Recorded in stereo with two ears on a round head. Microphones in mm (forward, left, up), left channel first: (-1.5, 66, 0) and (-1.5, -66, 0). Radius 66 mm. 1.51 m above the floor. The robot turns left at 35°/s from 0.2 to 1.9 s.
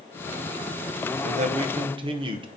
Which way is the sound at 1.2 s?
50° right (ahead or behind).